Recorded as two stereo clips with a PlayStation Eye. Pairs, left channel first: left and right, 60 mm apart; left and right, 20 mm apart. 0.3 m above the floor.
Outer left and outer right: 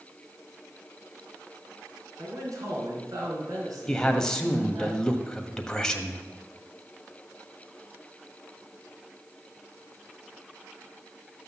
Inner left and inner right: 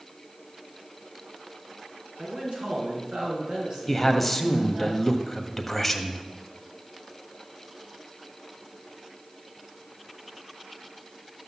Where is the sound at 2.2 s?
70° right (ahead or behind), 3.5 m.